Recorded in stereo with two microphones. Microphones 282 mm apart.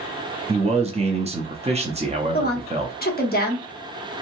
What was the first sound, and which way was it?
A man speaking, 25° right (ahead or behind).